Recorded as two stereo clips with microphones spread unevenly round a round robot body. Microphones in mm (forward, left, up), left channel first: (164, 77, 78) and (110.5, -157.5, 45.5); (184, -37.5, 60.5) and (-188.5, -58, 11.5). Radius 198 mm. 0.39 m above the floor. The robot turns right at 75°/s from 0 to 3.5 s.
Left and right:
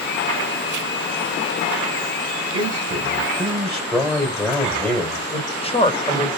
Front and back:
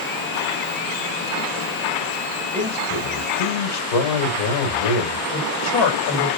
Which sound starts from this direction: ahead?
A man speaking, at 5.3 s.